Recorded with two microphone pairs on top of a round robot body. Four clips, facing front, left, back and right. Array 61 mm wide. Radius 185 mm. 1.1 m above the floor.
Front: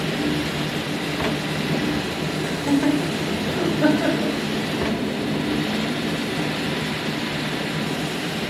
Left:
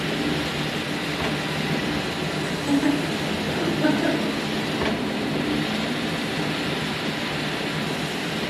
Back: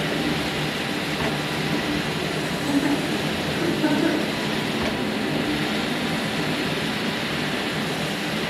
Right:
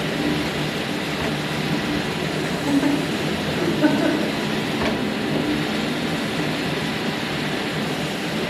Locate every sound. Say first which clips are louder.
2.4 s laughter: right 1 dB, front 3 dB; 50° right, 1.9 m; by 4.3 s 40° right, 3 m